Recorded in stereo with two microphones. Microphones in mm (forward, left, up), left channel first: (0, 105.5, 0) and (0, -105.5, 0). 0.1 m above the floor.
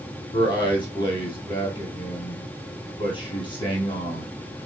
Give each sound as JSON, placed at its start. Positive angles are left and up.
{"t": 0.3, "sound": "a man speaking", "side_deg": 25, "distance_m": 2.5}